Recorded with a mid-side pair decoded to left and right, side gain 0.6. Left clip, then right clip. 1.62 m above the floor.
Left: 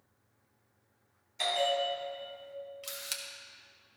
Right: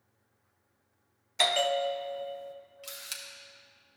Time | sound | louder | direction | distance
1.4 | a bell | right 3 dB | 55° right | 0.5 m
2.8 | a camera shutter | even | 10° left | 1.2 m